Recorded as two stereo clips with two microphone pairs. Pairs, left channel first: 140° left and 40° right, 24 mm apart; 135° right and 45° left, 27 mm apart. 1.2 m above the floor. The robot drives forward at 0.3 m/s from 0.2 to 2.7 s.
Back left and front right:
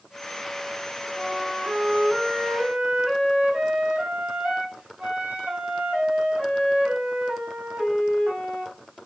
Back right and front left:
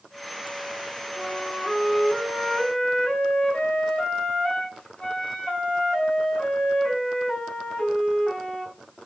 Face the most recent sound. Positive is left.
turn(degrees=-90)